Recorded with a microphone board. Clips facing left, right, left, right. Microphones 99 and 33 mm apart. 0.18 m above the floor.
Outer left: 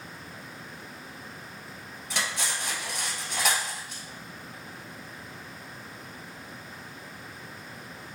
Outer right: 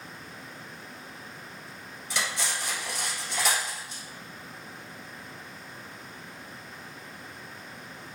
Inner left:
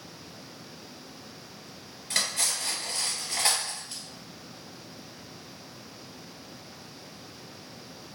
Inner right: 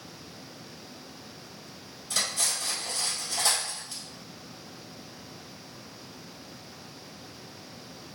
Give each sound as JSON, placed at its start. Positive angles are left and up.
{"t": 2.1, "sound": "cutlery clinking", "side_deg": 55, "distance_m": 1.6}